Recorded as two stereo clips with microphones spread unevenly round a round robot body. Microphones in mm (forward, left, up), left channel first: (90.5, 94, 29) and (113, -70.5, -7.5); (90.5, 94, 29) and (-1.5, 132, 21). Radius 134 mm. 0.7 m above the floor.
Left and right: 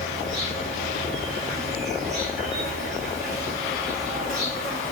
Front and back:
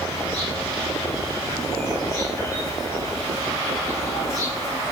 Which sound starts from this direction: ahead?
An insect, at 0.0 s.